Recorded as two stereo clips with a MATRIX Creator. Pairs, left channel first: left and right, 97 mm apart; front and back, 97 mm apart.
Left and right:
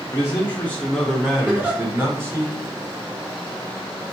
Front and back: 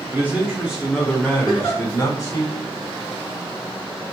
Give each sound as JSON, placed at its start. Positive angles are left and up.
{"t": 0.1, "sound": "a man speaking", "azimuth_deg": 125, "distance_m": 0.9}
{"t": 1.4, "sound": "a giggle", "azimuth_deg": -15, "distance_m": 1.9}